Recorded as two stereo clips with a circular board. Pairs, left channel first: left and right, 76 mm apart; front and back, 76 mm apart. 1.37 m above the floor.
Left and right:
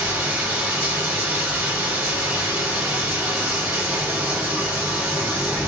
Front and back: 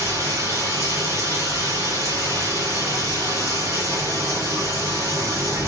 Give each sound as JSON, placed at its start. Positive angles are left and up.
{"t": 0.0, "sound": "running water", "azimuth_deg": -155, "distance_m": 1.8}